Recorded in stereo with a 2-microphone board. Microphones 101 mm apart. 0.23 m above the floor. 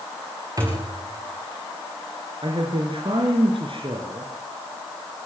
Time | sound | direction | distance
0.6 | a thud | 35° right (ahead or behind) | 7 m
2.4 | a man speaking | 55° right (ahead or behind) | 4 m